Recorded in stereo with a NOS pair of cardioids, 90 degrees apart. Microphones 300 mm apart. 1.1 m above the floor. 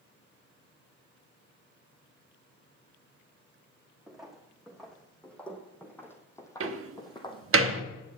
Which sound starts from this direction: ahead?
Footsteps, at 4.1 s.